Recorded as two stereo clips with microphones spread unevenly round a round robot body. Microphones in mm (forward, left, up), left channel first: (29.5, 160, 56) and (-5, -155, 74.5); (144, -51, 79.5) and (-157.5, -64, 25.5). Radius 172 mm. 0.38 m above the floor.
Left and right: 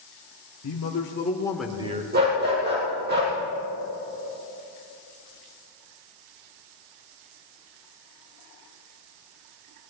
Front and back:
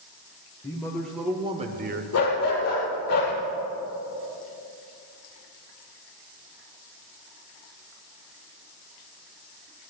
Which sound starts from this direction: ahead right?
A dog barking, at 2.1 s.